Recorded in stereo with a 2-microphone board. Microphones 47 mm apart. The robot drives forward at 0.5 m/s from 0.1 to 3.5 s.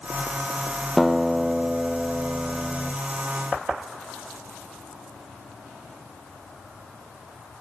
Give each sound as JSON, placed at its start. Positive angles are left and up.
{"t": 1.0, "sound": "a guitar", "side_deg": 0, "distance_m": 0.7}